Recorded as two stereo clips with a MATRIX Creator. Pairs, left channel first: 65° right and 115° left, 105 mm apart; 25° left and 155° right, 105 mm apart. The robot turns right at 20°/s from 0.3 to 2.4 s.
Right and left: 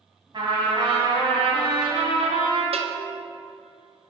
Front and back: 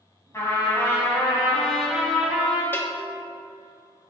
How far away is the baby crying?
I don't hear a baby crying.